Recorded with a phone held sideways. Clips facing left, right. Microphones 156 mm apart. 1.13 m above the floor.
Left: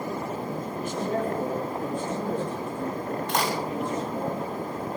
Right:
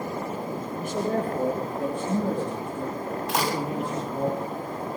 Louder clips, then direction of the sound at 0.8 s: Right 2 dB; 65° right (ahead or behind).